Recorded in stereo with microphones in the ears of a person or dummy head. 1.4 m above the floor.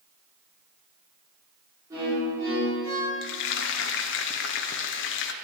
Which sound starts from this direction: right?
A violin, at 1.9 s.